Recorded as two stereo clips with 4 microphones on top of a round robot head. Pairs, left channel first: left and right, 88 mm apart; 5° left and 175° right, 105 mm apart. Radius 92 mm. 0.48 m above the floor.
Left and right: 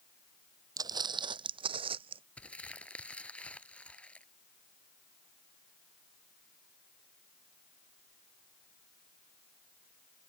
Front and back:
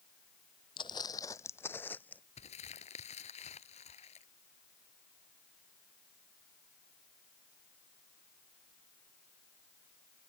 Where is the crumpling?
15° left.